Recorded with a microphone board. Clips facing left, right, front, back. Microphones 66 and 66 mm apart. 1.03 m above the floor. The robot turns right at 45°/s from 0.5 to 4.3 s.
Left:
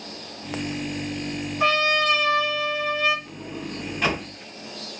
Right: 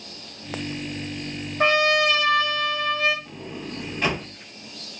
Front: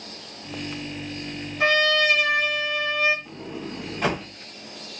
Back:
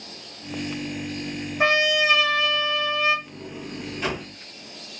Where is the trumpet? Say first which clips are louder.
Right 2 dB, even; 120° right, 1.1 m; by 3.1 s 50° right, 1.1 m.